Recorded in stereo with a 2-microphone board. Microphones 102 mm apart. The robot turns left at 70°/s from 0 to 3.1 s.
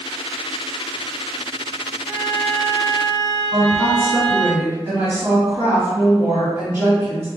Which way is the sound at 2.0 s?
25° right.